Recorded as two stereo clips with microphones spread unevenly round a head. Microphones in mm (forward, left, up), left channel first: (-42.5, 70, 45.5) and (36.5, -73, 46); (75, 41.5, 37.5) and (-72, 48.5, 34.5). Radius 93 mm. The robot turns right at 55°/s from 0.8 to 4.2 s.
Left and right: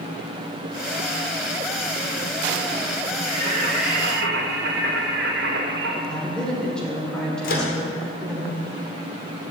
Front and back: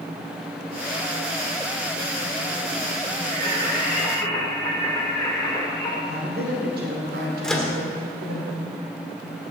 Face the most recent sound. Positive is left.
turn(degrees=85)